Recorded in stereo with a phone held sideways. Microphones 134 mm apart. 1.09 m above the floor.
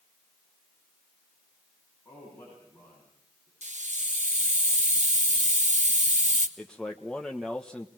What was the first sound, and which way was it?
A man speaking, 20° left (ahead or behind).